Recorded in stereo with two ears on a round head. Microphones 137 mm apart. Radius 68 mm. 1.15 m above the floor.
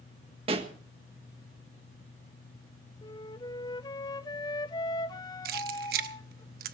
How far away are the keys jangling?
About 1.0 m.